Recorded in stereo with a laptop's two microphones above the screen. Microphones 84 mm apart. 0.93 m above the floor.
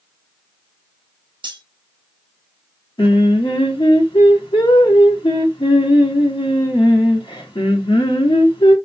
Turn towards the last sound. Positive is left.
turn(degrees=80)